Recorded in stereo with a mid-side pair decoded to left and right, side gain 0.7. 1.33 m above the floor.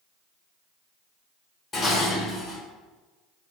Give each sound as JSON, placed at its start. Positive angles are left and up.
{"t": 1.7, "sound": "dishes clattering", "azimuth_deg": 20, "distance_m": 1.7}